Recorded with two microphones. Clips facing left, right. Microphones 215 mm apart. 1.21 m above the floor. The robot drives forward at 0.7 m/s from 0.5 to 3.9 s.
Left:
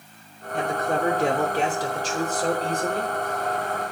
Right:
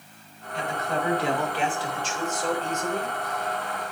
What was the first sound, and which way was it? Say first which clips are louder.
A man speaking: left 4 dB; 50° left (ahead or behind).